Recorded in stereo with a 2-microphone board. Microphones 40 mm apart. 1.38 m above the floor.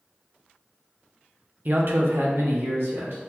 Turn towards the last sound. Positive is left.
turn(degrees=-70)  # may be behind; listen again after turning